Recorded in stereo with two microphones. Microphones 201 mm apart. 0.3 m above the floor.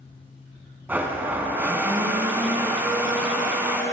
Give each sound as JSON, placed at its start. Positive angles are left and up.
{"t": 0.9, "sound": "a blender", "side_deg": -10, "distance_m": 1.3}